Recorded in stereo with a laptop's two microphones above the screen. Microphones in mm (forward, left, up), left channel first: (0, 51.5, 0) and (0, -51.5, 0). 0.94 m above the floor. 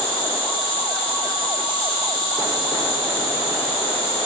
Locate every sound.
0.0 s an insect: 60° left (ahead or behind), 0.8 m